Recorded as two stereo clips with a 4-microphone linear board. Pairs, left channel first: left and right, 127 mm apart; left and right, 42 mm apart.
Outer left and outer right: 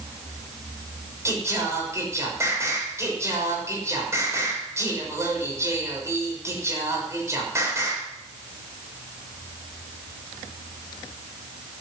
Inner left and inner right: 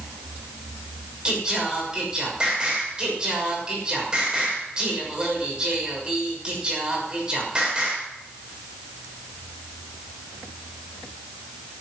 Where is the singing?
20° right (ahead or behind), 6.5 m.